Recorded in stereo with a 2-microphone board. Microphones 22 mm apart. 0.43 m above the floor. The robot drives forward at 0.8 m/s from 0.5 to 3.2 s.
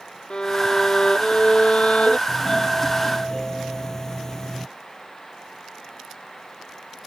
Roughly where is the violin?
Left.